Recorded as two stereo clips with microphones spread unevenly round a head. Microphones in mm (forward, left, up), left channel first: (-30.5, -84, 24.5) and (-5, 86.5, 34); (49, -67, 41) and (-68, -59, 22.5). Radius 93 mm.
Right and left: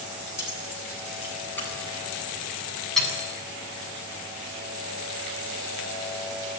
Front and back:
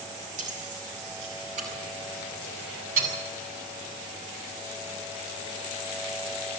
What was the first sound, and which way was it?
Keys jangling, 175° right.